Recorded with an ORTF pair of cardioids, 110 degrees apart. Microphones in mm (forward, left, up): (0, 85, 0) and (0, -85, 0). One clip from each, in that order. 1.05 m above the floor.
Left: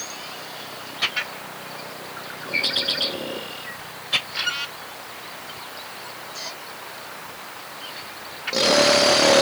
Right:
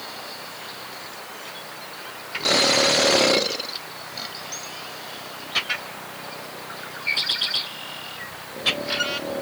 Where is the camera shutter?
I don't hear a camera shutter.